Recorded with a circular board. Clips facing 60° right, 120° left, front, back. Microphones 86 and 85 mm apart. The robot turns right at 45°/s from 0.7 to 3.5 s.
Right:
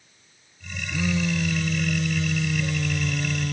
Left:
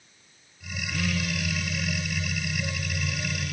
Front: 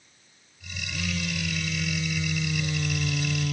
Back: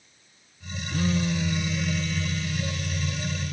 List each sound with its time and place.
0.9 s a phone buzzing: 135° right; by 3.5 s 20° right